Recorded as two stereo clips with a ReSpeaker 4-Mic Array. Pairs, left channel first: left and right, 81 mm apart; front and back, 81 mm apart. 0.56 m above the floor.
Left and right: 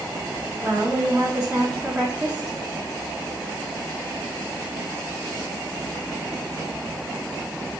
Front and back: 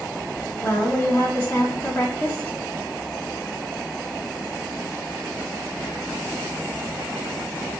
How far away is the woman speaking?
About 0.6 m.